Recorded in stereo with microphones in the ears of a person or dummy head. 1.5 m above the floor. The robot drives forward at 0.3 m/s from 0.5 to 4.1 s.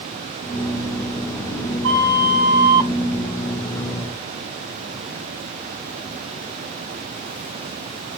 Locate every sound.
1.8 s a flute: 60° right (ahead or behind), 1.9 m